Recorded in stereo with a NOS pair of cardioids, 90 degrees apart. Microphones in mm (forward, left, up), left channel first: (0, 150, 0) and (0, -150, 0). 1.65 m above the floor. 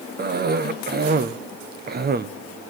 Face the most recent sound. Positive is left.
turn(degrees=-35)